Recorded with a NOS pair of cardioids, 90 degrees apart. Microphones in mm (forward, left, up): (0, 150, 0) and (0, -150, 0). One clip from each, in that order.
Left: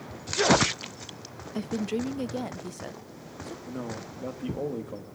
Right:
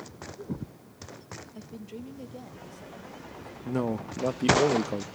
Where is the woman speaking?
55° left, 0.5 m; by 3.5 s 65° left, 1.5 m.